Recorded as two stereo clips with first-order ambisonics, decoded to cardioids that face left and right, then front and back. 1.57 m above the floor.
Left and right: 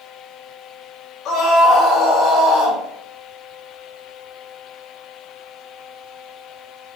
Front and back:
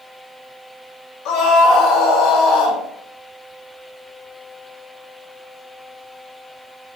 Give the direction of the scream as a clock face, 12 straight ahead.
11 o'clock.